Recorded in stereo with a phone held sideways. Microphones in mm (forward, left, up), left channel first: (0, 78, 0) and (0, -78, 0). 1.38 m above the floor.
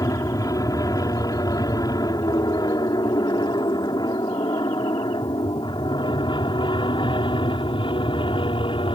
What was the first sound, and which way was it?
An aircraft, 20° left (ahead or behind).